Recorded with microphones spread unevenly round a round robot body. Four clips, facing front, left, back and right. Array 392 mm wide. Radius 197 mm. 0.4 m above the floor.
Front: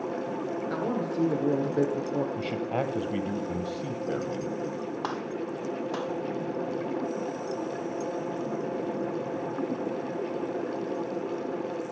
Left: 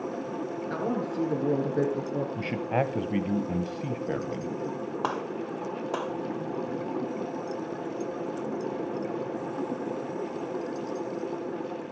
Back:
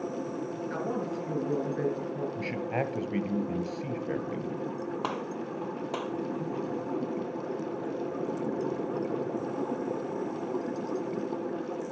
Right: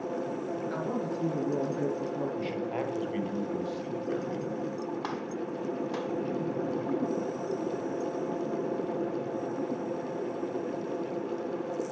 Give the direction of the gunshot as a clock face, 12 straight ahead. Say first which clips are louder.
Left 3 dB, front 2 dB; 9 o'clock.